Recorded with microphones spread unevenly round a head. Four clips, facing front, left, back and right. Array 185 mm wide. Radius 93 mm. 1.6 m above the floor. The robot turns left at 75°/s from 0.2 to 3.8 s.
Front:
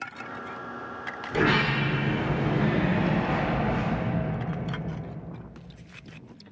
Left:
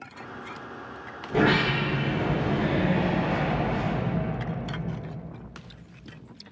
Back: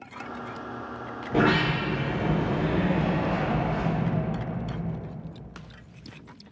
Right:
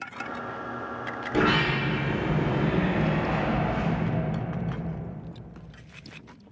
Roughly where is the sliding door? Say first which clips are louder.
Left 1 dB, back 2 dB; behind.